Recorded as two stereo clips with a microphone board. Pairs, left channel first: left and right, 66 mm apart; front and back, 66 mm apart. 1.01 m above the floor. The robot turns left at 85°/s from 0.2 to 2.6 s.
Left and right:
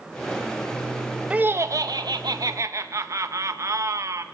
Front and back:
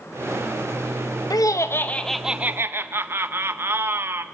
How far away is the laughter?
About 0.6 m.